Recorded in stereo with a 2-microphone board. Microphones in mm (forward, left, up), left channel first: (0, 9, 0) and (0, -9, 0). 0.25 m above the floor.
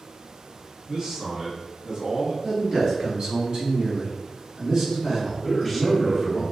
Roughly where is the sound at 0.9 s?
Right.